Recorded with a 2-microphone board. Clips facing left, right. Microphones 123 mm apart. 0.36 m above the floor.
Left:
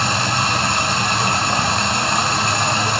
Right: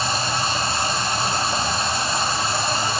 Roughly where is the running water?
Left.